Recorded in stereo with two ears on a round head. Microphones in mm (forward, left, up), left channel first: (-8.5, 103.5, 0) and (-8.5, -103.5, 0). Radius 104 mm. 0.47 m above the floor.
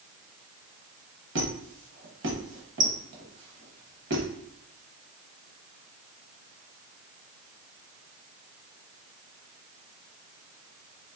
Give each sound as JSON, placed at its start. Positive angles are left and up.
{"t": 1.4, "sound": "a squeak", "side_deg": -50, "distance_m": 0.9}